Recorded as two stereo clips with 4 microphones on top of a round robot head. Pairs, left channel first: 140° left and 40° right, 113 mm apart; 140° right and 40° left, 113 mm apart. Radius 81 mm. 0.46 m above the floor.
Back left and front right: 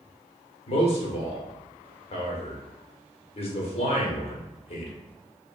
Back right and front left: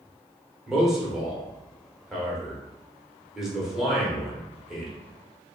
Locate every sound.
0.7 s a man speaking: 125° left, 1.2 m